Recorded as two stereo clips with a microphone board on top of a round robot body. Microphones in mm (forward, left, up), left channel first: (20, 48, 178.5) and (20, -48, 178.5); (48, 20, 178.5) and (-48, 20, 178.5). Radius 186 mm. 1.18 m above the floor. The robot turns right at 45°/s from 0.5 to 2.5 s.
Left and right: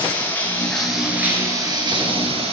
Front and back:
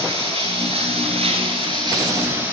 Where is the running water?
165° left, 10 m; by 2.5 s 105° right, 10 m.